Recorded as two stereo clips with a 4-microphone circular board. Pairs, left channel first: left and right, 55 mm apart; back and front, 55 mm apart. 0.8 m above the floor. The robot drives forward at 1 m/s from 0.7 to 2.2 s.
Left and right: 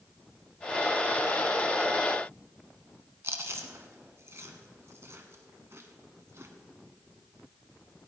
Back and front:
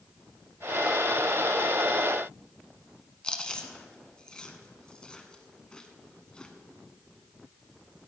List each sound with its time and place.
3.2 s chewing: 110° right, 1.1 m